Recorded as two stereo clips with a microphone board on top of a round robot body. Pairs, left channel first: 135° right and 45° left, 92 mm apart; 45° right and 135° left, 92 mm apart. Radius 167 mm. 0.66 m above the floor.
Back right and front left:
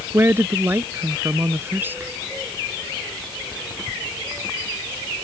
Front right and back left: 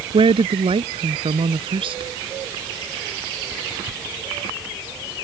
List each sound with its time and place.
0.1 s a woman speaking: 110° left; by 2.1 s 115° left